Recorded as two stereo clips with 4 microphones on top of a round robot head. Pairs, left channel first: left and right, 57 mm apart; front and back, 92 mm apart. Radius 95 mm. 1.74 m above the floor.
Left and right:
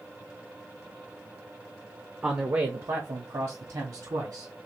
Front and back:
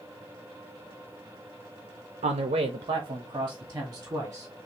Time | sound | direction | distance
2.2 | a man speaking | 165° right | 0.6 m